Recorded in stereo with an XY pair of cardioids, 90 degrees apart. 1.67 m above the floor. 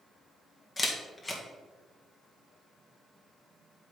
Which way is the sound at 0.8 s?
35° left.